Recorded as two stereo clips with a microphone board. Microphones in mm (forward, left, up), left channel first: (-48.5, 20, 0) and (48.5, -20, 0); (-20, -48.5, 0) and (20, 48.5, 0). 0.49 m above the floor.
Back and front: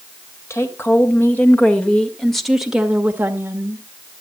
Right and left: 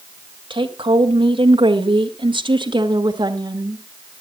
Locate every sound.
0.5 s a woman speaking: 95° left, 2.5 m; by 3.8 s 30° left, 1.6 m